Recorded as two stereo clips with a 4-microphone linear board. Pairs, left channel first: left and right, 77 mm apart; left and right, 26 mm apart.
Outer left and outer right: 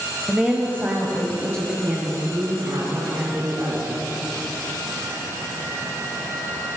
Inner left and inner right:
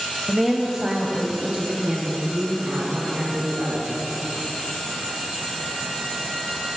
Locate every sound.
0.3 s a woman speaking: 10° right (ahead or behind), 1.0 m; by 3.9 s 50° right (ahead or behind), 3.5 m